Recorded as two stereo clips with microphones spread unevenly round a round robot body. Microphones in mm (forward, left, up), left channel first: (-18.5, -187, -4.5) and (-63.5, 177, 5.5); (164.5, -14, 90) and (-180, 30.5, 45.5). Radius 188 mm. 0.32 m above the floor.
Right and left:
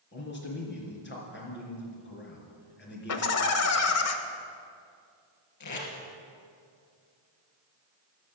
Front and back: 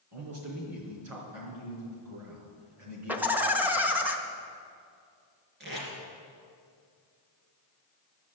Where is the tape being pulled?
125° right, 3 m.